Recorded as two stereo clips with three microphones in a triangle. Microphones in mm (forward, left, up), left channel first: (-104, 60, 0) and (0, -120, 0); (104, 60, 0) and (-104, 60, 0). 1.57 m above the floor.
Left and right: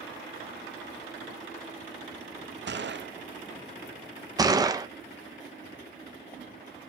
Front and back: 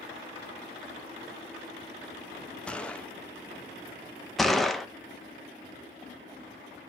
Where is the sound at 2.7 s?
85° right, 0.6 m.